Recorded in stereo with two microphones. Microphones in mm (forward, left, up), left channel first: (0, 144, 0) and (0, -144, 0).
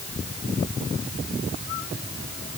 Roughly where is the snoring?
I don't hear snoring.